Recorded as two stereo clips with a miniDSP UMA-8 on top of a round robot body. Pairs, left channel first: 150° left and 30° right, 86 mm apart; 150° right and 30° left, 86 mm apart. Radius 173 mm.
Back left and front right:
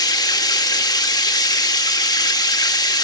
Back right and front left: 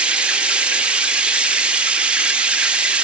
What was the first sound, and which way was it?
Running water, 110° left.